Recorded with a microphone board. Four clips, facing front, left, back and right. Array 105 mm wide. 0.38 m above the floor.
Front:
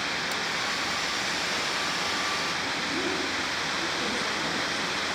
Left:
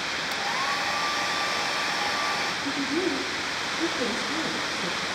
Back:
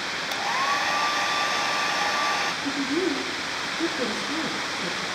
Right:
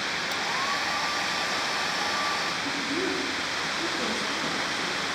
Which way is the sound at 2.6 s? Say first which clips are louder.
Left 5 dB, back 5 dB; straight behind.